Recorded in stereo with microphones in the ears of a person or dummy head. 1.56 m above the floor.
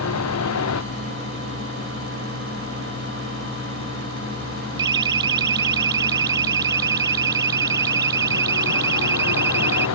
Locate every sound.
0.0 s a vehicle: 75° left (ahead or behind)
4.8 s a siren: 25° right (ahead or behind); by 9.9 s 15° right (ahead or behind)